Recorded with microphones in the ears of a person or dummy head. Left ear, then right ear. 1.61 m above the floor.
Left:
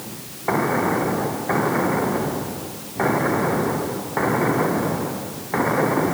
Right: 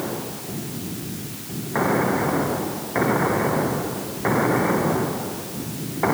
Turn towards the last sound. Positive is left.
No sound to turn to.